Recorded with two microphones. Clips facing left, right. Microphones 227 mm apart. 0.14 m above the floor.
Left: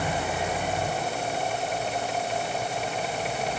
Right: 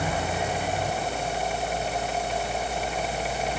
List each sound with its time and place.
Only background noise.